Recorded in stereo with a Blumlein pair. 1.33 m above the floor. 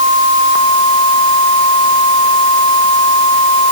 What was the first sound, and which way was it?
Only background noise.